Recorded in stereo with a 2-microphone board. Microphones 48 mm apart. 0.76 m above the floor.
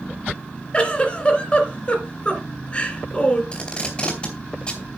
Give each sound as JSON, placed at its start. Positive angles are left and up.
{"t": 0.7, "sound": "a giggle", "side_deg": 25, "distance_m": 2.5}
{"t": 3.5, "sound": "tape being pulled", "side_deg": 25, "distance_m": 3.0}